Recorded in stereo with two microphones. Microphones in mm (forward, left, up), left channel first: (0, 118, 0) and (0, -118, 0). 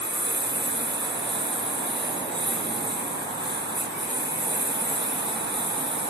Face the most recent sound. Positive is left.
turn(degrees=-45)  # may be behind; listen again after turning